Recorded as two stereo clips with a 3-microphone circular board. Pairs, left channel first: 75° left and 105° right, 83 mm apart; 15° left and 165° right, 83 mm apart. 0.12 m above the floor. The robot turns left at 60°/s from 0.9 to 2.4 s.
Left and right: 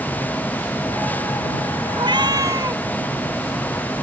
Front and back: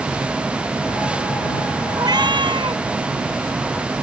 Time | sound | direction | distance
2.0 | a cat meowing | 120° right | ?